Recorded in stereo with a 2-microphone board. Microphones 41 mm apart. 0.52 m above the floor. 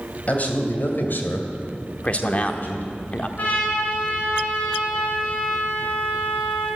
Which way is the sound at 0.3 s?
40° left (ahead or behind).